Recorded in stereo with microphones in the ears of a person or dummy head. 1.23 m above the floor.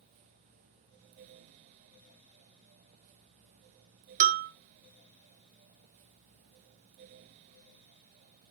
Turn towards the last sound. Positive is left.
turn(degrees=-45)  # may be behind; listen again after turning